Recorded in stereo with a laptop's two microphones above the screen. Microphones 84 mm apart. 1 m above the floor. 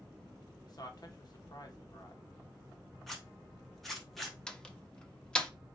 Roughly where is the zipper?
Centre.